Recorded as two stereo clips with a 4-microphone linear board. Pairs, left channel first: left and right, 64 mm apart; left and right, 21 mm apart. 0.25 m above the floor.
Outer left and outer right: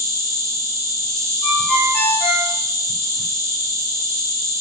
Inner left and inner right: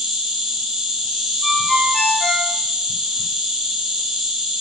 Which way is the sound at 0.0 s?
55° right (ahead or behind).